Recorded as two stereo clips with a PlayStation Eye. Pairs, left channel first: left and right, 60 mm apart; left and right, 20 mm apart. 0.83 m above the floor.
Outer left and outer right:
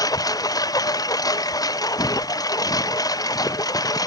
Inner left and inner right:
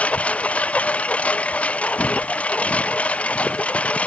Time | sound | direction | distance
0.0 | a lawn mower | 85° left | ?
2.0 | footsteps | 75° left (ahead or behind) | ?